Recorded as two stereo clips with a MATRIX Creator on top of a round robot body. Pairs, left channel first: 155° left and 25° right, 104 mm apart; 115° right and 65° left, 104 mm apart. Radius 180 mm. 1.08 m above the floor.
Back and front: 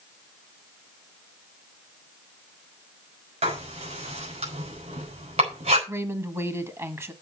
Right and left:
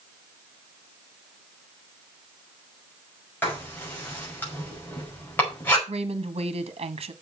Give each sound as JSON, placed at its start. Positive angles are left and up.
{"t": 3.4, "sound": "writing", "azimuth_deg": -40, "distance_m": 6.0}
{"t": 5.9, "sound": "a woman speaking", "azimuth_deg": 45, "distance_m": 1.7}